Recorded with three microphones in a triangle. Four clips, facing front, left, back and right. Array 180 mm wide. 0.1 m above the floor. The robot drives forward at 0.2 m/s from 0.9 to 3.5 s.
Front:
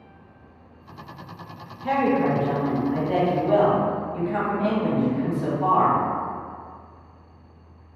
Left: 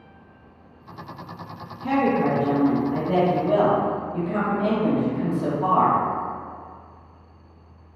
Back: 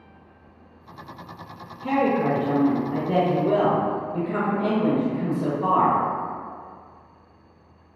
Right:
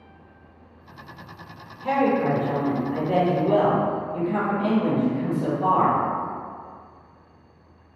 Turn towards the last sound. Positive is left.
turn(degrees=170)